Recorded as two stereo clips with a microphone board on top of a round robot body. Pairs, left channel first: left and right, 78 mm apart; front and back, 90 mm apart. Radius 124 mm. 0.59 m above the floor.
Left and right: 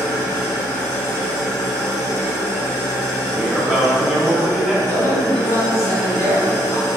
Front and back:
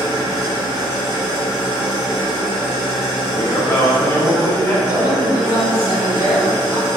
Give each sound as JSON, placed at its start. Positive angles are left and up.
{"t": 0.0, "sound": "an engine running", "azimuth_deg": 130, "distance_m": 0.8}
{"t": 3.3, "sound": "a man speaking", "azimuth_deg": -15, "distance_m": 0.6}
{"t": 4.8, "sound": "a man speaking", "azimuth_deg": 115, "distance_m": 1.6}